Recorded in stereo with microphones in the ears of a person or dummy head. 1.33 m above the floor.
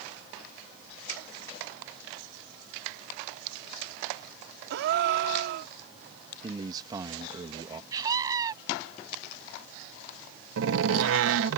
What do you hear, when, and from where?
4.7 s a gasp: 55° right (ahead or behind)
6.4 s a man speaking: 25° right (ahead or behind)
7.9 s a scream: 20° right (ahead or behind)
10.6 s a door slam: 75° right (ahead or behind)